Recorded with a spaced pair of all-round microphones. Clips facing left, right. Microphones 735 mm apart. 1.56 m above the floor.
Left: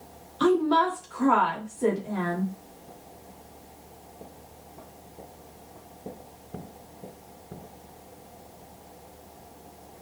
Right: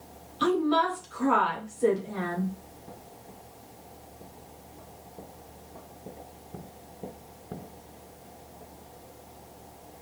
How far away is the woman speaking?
About 1.8 m.